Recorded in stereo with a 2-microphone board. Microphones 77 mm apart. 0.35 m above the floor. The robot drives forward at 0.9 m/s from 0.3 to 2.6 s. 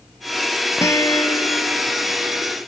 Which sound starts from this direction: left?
A guitar, at 0.8 s.